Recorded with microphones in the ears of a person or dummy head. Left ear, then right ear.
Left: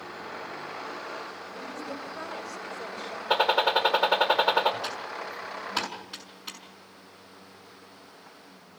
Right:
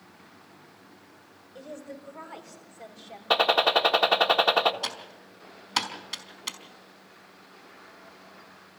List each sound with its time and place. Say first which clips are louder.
1.6 s a woman speaking: left 2 dB; 55° right (ahead or behind), 6.5 m; by 3.2 s 40° right (ahead or behind), 5 m
3.3 s a gunshot: right 1 dB; 25° right (ahead or behind), 1.6 m
4.8 s typing on a keyboard: left 2 dB; 60° right (ahead or behind), 4.5 m